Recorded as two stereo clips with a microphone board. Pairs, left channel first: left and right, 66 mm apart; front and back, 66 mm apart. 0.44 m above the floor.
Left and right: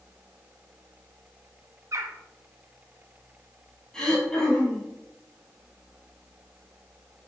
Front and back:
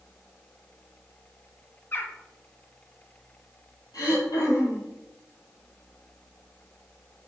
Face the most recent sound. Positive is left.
turn(degrees=10)